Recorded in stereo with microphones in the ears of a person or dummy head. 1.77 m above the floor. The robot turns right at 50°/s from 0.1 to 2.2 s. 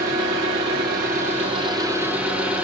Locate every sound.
0.0 s an engine running: 115° right, 1.6 m; by 2.6 s 10° right, 1.6 m